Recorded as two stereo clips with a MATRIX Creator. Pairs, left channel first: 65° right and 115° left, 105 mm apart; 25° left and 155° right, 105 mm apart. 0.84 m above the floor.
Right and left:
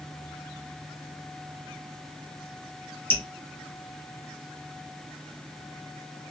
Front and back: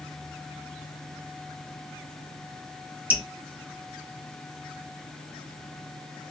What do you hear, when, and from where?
3.1 s dripping: 105° right, 0.7 m